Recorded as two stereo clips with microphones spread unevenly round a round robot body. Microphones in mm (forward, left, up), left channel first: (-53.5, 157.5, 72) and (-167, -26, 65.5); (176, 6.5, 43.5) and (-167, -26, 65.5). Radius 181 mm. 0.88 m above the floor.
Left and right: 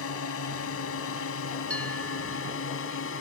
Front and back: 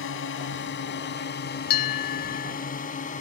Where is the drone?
60° left; by 3.2 s 75° left.